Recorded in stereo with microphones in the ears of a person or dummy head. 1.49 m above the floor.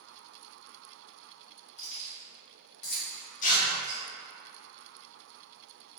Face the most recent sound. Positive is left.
turn(degrees=45)  # may be behind; listen again after turning